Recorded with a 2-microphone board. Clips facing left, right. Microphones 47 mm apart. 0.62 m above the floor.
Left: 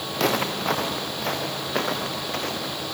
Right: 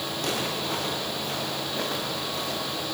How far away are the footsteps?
About 4.5 m.